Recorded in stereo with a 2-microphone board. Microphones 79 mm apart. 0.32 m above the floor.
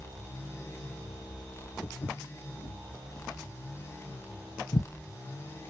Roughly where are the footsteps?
Left.